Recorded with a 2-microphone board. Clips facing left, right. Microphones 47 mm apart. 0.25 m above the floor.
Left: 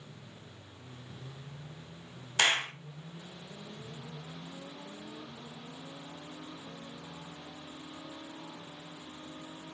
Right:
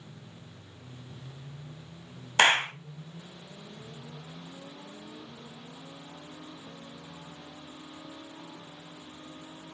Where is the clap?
40° right (ahead or behind), 1.0 m.